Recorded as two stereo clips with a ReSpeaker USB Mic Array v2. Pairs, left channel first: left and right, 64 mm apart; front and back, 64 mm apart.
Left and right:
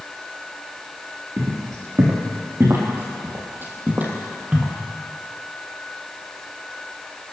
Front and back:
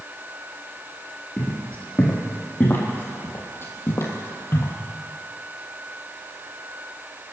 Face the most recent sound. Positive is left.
turn(degrees=-25)